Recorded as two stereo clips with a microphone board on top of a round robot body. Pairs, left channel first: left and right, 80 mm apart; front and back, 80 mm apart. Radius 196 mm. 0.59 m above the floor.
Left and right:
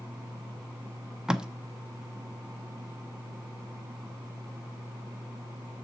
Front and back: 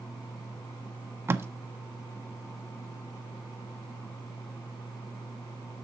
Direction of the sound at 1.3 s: 165° right.